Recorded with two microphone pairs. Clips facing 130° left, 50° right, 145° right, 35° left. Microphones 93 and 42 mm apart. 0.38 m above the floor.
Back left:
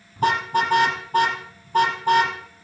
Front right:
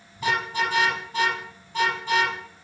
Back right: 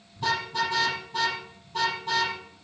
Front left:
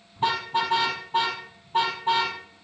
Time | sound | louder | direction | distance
0.2 | a car horn | back left 5 dB, front left 2 dB | 85° left | 5 m